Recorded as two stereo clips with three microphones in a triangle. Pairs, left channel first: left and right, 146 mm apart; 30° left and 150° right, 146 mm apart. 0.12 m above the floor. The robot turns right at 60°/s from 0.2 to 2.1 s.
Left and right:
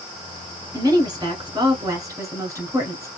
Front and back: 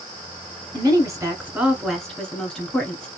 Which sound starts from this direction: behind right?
A woman speaking, at 0.7 s.